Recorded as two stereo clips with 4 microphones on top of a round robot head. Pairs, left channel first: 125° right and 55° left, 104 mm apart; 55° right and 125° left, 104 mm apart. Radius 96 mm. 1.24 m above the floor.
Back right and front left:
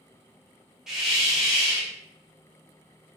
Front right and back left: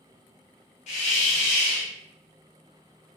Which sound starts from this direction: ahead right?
A hiss, at 0.9 s.